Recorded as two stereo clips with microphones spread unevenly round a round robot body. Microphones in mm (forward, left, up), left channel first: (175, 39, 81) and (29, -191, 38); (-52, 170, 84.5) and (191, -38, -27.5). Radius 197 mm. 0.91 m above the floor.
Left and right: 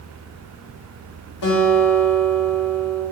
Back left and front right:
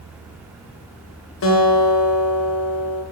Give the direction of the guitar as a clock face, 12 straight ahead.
9 o'clock.